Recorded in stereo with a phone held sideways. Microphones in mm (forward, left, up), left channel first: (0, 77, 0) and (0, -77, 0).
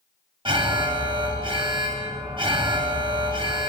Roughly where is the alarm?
Right.